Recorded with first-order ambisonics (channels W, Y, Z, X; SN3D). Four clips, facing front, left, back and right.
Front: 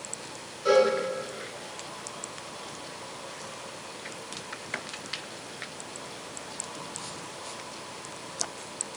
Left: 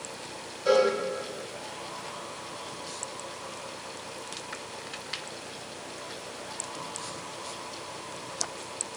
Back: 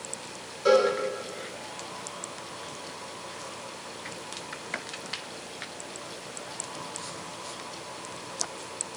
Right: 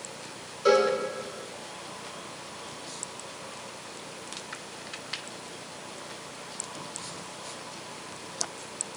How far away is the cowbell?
About 2.5 m.